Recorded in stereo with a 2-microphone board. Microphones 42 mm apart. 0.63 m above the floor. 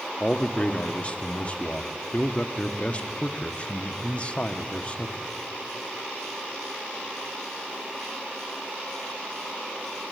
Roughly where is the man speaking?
Left.